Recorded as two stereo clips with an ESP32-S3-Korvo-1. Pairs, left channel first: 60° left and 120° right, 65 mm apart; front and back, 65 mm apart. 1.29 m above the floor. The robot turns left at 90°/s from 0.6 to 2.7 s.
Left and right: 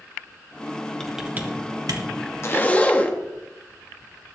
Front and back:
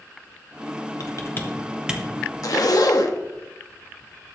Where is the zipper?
20° left, 1.1 m; by 3.2 s 5° right, 1.1 m.